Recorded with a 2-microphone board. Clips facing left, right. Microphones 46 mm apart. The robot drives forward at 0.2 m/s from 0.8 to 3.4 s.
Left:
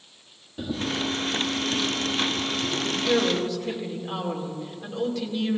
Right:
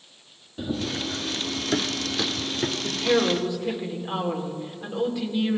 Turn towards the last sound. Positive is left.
turn(degrees=-15)  # may be behind; listen again after turning